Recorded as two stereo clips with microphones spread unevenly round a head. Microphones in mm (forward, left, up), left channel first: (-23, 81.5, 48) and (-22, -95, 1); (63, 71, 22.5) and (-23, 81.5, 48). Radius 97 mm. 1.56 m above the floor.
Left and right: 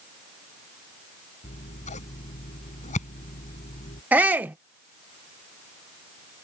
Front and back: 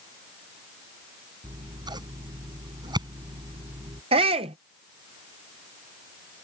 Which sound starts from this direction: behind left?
Scissors, at 1.4 s.